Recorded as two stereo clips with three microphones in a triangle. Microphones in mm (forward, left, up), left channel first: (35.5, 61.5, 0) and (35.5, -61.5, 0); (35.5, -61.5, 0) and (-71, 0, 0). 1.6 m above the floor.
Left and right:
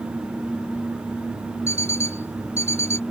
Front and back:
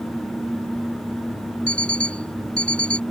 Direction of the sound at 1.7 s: 110° right.